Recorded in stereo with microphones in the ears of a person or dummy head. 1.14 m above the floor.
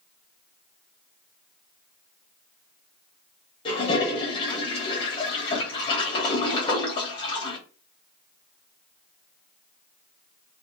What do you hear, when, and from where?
3.6 s a toilet flushing: 30° left (ahead or behind), 0.8 m